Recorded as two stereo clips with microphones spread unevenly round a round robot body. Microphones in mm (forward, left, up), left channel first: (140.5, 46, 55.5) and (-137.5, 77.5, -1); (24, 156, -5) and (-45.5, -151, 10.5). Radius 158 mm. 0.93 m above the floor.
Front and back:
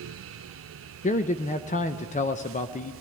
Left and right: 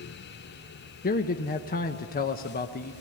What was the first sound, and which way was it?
A man speaking, 55° left.